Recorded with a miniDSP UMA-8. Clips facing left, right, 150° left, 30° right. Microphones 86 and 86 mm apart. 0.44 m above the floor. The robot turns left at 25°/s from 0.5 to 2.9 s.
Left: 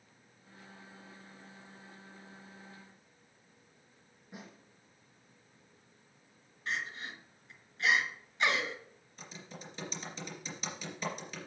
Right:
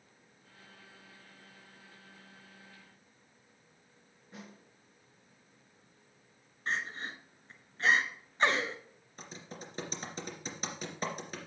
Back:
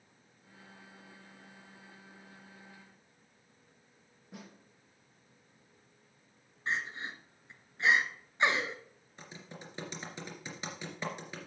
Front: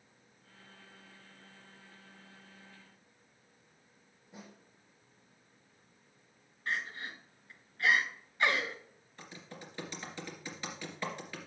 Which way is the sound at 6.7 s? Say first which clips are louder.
Right 2 dB, back 1 dB; 145° right.